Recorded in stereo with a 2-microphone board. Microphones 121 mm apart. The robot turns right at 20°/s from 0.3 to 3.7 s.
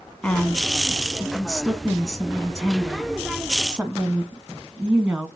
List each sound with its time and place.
0.2 s a woman speaking: 10° left (ahead or behind), 1.1 m; by 5.3 s 10° right (ahead or behind), 1.1 m